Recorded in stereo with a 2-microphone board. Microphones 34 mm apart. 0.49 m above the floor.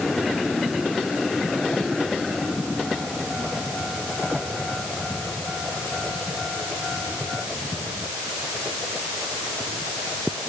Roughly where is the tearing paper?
No tearing paper in this recording.